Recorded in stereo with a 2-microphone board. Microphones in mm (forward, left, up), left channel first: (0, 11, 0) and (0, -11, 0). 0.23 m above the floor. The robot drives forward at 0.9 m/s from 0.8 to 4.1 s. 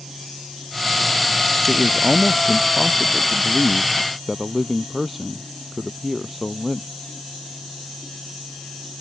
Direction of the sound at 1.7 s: 5° right (ahead or behind).